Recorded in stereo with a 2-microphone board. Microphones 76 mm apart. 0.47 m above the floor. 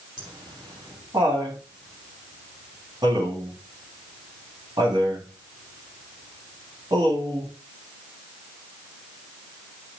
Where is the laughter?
65° right (ahead or behind), 4.5 m.